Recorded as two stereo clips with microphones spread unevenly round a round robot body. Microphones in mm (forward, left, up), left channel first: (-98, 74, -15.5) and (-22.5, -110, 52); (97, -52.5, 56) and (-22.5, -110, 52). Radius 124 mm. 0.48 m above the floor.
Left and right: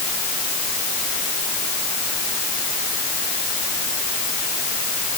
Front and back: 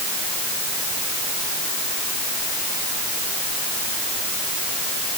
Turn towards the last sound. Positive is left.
No sound to turn to.